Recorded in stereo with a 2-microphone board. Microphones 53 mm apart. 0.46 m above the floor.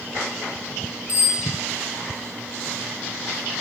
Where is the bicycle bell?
60° left (ahead or behind), 9.5 m.